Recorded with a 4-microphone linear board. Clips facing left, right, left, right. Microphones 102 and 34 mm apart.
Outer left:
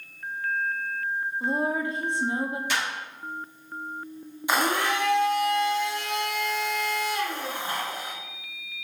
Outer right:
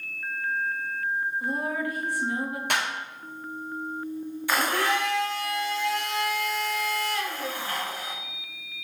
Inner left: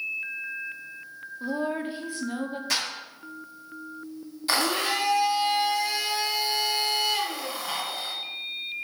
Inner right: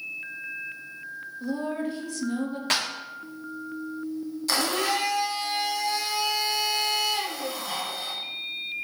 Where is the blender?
20° left (ahead or behind), 0.7 m.